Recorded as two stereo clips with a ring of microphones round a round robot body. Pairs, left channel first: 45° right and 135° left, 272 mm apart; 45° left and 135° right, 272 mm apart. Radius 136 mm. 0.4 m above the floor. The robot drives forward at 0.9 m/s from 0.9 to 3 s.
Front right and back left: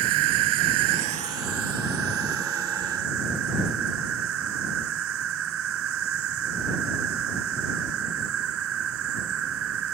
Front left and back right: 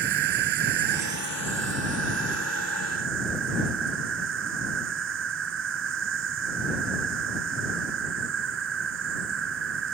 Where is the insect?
170° left; by 9.9 s straight behind.